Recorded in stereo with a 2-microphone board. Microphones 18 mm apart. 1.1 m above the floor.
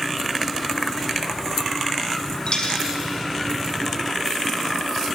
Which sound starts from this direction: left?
A dropped coin, at 2.5 s.